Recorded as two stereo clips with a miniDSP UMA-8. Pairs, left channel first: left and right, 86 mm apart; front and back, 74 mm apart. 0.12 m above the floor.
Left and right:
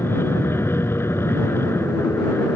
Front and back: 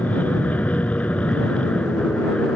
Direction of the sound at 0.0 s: 50° left.